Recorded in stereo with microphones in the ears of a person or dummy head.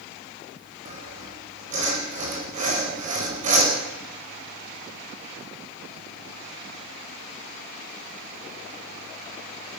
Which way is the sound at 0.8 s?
35° right (ahead or behind).